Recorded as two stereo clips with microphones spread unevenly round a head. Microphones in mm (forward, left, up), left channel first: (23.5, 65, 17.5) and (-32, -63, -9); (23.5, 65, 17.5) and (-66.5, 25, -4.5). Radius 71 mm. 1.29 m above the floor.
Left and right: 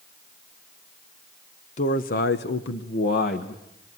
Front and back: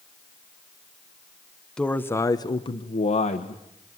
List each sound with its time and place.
1.8 s a man speaking: 110° left, 1.3 m; by 3.6 s 25° left, 1.8 m